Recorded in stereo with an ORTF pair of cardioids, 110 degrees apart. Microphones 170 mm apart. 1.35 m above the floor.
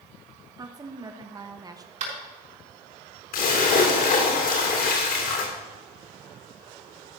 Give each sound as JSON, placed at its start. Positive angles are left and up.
{"t": 0.6, "sound": "a woman speaking", "azimuth_deg": -20, "distance_m": 1.2}
{"t": 2.0, "sound": "tapping", "azimuth_deg": -45, "distance_m": 5.0}
{"t": 3.3, "sound": "a splash", "azimuth_deg": 60, "distance_m": 3.0}